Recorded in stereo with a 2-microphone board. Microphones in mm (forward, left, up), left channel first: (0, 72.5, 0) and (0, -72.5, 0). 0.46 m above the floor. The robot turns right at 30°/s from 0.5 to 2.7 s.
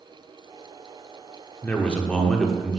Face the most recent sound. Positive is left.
turn(degrees=0)  # may be behind; listen again after turning